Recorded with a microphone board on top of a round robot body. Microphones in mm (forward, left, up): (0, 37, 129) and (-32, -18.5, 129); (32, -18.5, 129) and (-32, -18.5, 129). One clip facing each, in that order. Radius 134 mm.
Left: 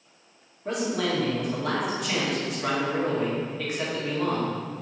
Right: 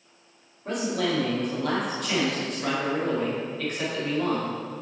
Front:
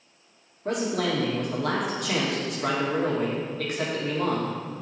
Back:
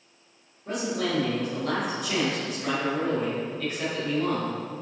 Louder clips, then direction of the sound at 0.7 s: Even, front 2 dB; 25° right.